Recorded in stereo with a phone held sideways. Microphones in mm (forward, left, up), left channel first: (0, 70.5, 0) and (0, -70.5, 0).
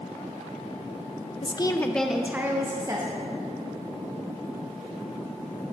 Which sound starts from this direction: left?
A woman speaking, at 1.4 s.